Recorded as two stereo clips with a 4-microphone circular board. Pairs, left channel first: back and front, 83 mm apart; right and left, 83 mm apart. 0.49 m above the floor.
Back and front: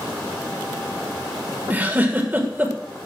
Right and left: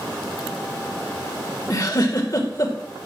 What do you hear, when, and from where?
1.7 s a giggle: 65° right, 1.8 m